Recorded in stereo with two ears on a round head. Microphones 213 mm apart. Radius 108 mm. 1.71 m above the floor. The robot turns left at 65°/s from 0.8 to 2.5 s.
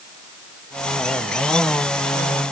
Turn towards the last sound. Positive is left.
No sound to turn to.